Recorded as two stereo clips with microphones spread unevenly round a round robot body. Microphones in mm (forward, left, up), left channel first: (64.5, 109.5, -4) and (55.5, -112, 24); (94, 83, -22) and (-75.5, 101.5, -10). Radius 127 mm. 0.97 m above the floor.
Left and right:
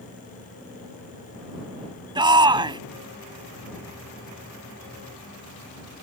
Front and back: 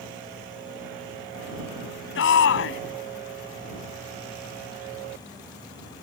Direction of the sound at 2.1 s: 20° right.